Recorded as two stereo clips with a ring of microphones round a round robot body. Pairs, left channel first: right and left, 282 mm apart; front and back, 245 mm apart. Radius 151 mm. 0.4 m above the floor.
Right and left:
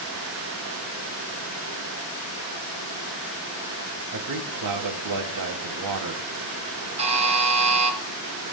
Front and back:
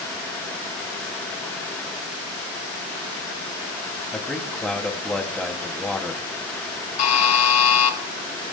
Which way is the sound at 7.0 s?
20° left.